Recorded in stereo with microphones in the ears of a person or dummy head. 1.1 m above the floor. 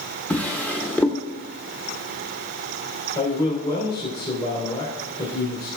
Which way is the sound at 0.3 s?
5° left (ahead or behind).